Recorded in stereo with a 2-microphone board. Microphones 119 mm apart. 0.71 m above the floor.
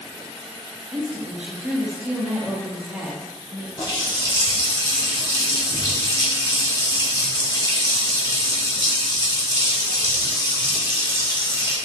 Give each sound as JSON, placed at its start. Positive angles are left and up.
{"t": 0.9, "sound": "a woman speaking", "side_deg": -10, "distance_m": 1.2}
{"t": 3.8, "sound": "a running tap", "side_deg": 35, "distance_m": 1.3}